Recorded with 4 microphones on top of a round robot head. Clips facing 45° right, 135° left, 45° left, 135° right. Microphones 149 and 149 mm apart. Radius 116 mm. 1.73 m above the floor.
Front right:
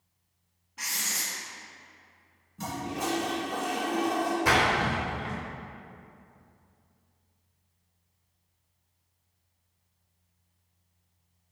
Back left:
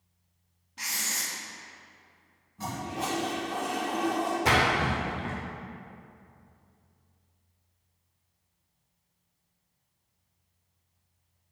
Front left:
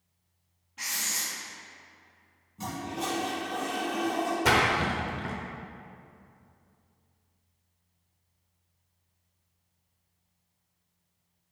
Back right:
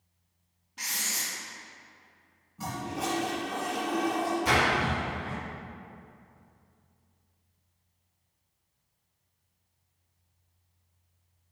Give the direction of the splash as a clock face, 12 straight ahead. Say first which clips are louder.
Back left 1 dB, front left 1 dB; 10 o'clock.